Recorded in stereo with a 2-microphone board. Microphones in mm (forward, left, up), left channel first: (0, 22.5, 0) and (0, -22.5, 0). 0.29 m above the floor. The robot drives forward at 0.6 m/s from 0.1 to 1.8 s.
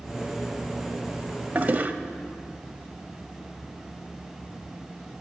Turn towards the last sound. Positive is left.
turn(degrees=-40)  # may be behind; listen again after turning